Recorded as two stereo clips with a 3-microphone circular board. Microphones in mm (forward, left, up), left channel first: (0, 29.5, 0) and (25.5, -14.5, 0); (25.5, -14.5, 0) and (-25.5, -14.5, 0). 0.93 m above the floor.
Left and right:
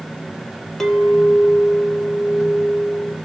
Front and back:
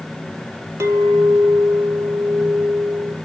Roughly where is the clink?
Behind.